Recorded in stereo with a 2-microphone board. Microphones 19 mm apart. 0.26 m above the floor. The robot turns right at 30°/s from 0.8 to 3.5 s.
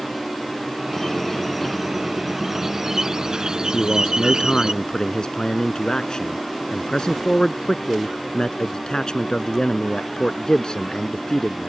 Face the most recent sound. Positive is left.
turn(degrees=45)  # may be behind; listen again after turning